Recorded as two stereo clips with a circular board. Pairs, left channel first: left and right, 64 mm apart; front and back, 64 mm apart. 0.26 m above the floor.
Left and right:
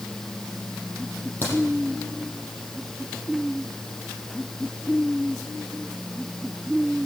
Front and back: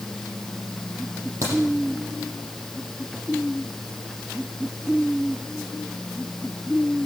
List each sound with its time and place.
1.4 s a crack: 145° left, 8.5 m